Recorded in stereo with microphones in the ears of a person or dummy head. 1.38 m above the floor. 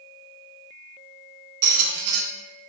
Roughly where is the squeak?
Right.